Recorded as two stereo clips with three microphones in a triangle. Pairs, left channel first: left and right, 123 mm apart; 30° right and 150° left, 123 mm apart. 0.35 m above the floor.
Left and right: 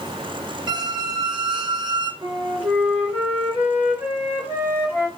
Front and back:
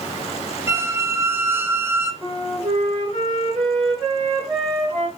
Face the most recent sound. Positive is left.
turn(degrees=-165)